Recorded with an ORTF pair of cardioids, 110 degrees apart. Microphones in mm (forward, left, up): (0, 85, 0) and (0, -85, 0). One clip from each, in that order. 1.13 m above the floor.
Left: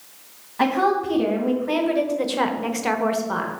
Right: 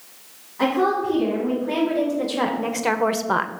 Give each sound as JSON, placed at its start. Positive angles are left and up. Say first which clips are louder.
{"t": 0.6, "sound": "a woman speaking", "louder": "left 1 dB", "azimuth_deg": 50, "distance_m": 1.9}